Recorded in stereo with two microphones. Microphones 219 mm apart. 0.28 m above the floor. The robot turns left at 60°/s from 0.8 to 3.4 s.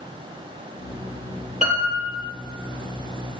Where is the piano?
35° right, 7.5 m; by 2.2 s 75° right, 7.5 m.